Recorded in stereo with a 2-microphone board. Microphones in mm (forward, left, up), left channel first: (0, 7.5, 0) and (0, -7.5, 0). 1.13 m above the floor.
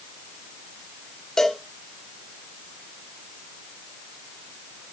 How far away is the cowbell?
About 2.5 m.